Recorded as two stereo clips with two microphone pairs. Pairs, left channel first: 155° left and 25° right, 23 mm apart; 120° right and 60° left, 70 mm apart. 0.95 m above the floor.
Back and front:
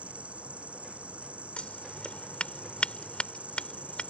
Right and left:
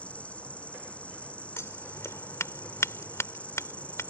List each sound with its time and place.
0.0 s an insect: 50° right
1.6 s scissors: 170° right